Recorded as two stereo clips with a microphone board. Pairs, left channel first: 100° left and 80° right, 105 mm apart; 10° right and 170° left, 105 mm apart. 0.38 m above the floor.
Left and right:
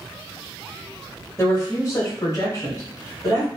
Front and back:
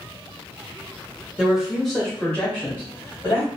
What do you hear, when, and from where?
1.4 s a woman speaking: 95° left, 1.1 m; by 3.5 s 50° left, 1.9 m